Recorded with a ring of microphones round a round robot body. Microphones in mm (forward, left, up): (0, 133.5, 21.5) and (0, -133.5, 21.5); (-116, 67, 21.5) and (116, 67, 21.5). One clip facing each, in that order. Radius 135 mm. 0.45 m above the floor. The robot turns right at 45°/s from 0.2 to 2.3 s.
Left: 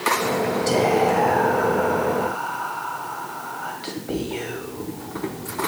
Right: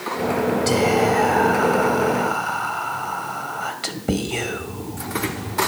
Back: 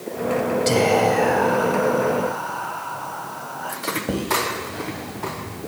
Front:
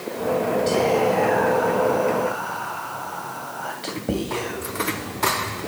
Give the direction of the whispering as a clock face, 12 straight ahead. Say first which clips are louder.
Left 1 dB, back 2 dB; 5 o'clock.